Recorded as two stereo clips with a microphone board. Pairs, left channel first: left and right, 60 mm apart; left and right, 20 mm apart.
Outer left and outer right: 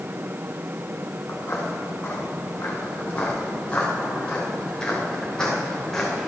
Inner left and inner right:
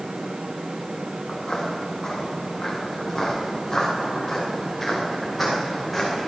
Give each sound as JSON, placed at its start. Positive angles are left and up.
{"t": 1.3, "sound": "footsteps", "side_deg": 40, "distance_m": 4.5}